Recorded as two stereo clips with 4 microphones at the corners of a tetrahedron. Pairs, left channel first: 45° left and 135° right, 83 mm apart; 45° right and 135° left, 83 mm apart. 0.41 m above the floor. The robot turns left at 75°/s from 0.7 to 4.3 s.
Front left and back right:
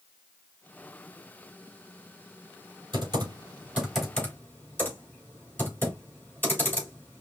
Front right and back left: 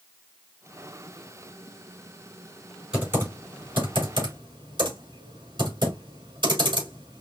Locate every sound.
2.9 s typing on a keyboard: 145° right, 3.5 m; by 7.2 s 110° left, 3.5 m